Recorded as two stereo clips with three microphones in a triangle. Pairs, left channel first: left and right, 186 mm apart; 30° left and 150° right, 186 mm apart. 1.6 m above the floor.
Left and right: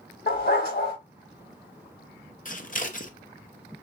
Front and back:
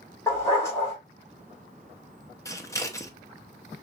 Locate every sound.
0.3 s a dog barking: 105° left, 2 m
2.5 s scissors: 95° left, 0.7 m